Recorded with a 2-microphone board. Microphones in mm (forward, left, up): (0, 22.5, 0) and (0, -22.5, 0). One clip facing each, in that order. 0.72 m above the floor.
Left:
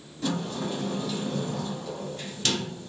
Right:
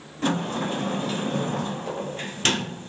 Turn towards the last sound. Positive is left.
turn(degrees=-40)  # may be behind; listen again after turning